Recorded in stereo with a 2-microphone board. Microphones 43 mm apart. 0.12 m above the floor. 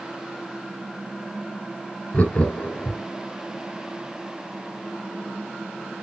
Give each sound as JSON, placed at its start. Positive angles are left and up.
{"t": 2.1, "sound": "laughter", "side_deg": 30, "distance_m": 1.1}